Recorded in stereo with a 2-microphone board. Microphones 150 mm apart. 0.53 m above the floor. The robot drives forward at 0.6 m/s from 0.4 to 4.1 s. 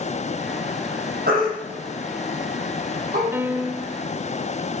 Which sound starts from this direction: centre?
A piano, at 3.3 s.